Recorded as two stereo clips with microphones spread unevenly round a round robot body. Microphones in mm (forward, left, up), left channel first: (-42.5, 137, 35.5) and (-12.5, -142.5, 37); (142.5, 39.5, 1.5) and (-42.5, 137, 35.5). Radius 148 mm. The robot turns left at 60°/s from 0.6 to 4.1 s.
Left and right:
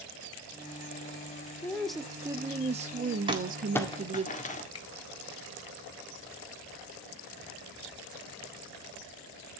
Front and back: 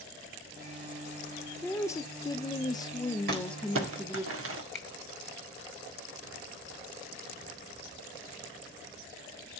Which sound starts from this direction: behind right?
Crumpling, at 3.3 s.